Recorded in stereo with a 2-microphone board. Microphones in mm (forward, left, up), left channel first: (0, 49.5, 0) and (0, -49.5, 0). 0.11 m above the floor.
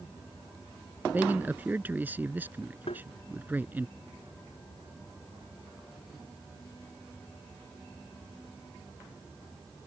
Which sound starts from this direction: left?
Tapping, at 2.9 s.